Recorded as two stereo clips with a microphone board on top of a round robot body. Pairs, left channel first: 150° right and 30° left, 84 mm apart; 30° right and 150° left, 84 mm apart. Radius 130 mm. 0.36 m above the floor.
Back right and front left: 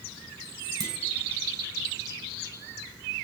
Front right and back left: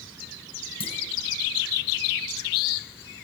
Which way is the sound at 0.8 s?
25° right.